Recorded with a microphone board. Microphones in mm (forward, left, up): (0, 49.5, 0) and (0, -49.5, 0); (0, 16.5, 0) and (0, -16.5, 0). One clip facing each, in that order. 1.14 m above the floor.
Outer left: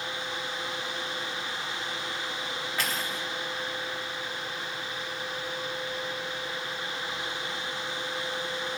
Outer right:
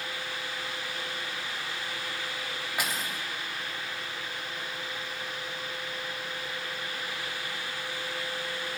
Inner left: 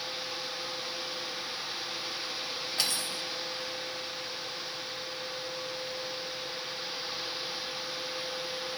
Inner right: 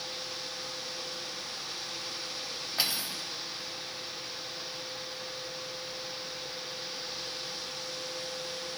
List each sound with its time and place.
2.8 s cutlery clinking: 10° right (ahead or behind), 0.9 m